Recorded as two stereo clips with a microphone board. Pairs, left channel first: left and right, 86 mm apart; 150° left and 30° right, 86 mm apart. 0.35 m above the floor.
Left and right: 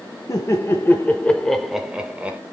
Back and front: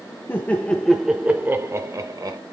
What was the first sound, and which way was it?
Laughter, 105° left.